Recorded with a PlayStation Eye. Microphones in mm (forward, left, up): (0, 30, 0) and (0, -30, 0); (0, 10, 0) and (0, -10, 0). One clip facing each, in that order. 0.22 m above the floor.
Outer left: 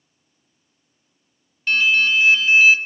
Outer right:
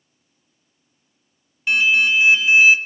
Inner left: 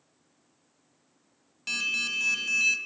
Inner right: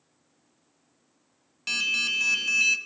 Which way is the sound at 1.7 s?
15° right (ahead or behind).